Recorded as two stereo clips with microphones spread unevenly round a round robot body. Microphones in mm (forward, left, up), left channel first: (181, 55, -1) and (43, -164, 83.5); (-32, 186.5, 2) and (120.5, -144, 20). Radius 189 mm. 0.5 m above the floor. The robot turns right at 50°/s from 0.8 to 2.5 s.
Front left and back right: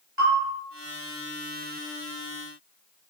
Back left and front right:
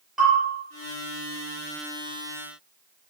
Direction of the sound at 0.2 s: 155° right.